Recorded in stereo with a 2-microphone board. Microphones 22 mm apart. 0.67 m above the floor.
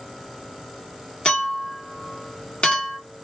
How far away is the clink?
About 1.0 m.